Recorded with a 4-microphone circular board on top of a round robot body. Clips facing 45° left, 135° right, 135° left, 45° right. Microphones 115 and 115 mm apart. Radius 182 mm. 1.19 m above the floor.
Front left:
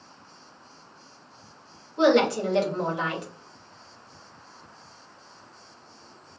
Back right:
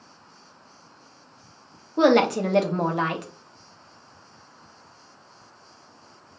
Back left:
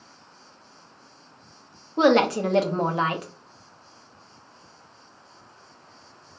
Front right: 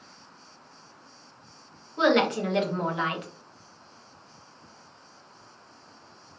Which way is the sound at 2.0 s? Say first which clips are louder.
Back right 2 dB, back left 4 dB; 170° right.